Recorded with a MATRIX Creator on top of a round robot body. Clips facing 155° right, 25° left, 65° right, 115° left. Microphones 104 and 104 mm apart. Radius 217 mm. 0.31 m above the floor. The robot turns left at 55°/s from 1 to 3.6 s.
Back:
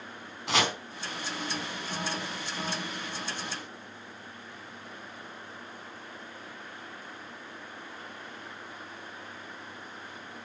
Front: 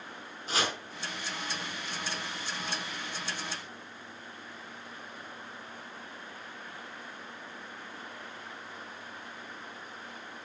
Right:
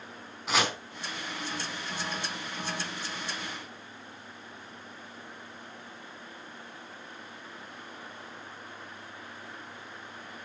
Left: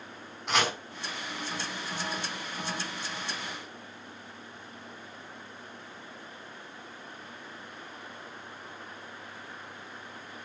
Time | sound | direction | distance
0.5 | chopping | 155° right | 4.5 m